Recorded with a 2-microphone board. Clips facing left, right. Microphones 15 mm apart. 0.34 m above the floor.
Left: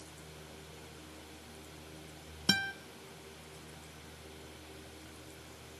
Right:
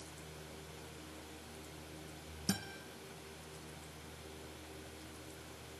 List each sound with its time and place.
2.5 s a guitar: 80° left, 0.7 m